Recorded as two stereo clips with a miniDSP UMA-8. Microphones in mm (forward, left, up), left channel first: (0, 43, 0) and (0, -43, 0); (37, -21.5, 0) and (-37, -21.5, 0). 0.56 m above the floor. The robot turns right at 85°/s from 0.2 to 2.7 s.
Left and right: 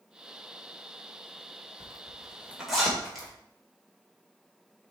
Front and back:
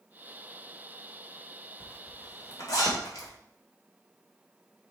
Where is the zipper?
75° right, 2.5 m; by 3.3 s straight ahead, 2.5 m.